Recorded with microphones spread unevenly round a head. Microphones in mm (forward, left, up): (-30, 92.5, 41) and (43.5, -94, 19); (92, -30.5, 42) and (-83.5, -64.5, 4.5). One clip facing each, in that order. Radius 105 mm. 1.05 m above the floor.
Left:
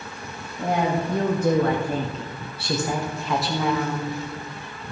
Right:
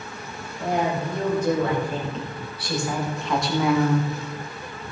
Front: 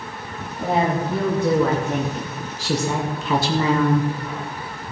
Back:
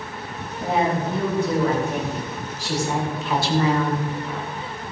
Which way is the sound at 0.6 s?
80° left.